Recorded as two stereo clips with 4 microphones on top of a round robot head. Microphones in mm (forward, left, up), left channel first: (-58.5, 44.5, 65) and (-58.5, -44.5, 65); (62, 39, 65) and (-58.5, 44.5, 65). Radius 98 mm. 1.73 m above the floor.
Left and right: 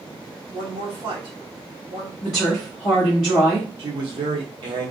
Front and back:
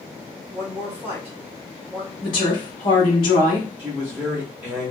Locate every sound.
0.5 s a woman speaking: 110° right, 1.3 m
2.2 s a woman speaking: 30° left, 0.8 m
3.8 s a man speaking: 105° right, 0.8 m